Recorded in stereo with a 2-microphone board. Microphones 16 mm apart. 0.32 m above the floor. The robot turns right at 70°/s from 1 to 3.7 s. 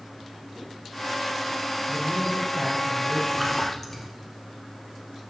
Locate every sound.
1.9 s a man speaking: 95° right, 6.5 m; by 3.2 s 5° right, 6.5 m
3.3 s a splash: 10° right (ahead or behind), 3 m; by 4.1 s 15° left (ahead or behind), 3 m